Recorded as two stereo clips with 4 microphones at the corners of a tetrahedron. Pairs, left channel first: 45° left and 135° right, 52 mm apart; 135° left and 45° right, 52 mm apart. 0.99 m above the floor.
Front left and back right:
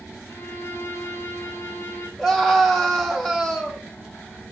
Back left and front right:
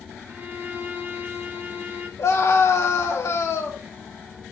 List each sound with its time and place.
0.3 s a violin: 5° left, 1.3 m
2.2 s a scream: 130° left, 2.5 m